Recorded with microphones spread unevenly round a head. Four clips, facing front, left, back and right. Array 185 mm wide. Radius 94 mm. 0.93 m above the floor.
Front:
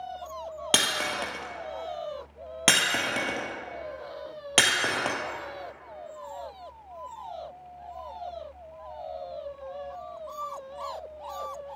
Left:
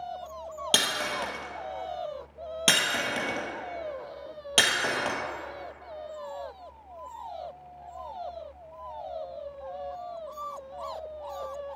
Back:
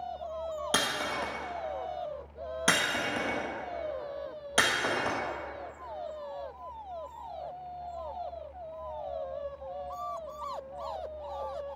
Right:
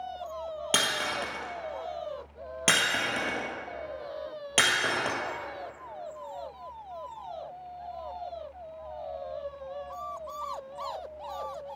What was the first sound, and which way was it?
Breaking glass, 10° left.